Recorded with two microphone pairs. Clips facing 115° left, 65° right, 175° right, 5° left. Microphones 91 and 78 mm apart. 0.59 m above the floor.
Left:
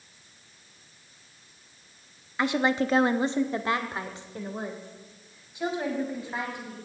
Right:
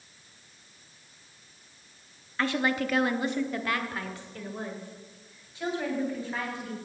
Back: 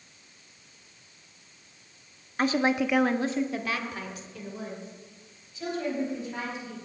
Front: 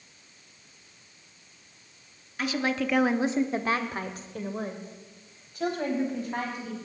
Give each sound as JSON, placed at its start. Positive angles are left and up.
{"t": 2.4, "sound": "a woman speaking", "azimuth_deg": 175, "distance_m": 0.7}